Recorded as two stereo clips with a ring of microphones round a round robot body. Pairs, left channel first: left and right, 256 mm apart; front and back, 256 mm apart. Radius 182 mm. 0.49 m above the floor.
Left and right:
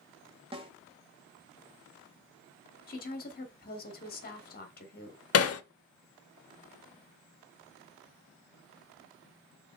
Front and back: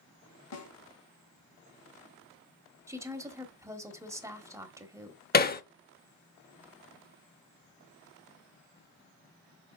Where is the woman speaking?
110° left, 1.3 m.